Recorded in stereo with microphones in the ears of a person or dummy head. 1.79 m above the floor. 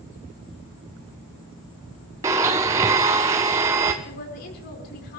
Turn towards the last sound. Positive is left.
turn(degrees=50)  # may be behind; listen again after turning